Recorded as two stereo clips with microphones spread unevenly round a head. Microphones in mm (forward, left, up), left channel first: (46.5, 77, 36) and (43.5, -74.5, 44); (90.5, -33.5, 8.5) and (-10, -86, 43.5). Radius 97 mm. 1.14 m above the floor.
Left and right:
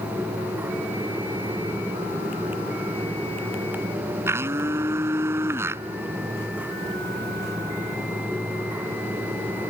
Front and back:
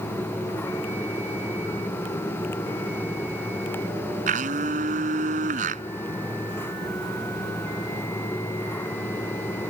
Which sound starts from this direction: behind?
A blender, at 4.3 s.